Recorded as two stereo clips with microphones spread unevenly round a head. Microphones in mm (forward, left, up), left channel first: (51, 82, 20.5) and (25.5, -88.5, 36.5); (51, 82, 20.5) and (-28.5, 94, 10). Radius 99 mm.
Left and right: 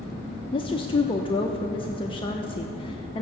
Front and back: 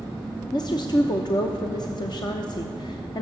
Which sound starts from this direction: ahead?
A woman speaking, at 0.5 s.